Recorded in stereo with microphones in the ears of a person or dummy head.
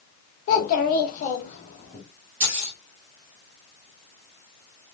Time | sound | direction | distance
0.5 | a child speaking | 45° left (ahead or behind) | 0.7 m
2.4 | keys jangling | 35° right (ahead or behind) | 1.2 m